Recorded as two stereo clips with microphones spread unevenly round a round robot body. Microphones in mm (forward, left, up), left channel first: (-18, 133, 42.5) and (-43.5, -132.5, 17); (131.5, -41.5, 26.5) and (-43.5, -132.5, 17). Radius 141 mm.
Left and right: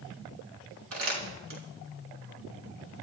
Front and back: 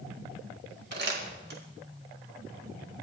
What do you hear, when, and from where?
0.9 s crumpling: 130° right, 5 m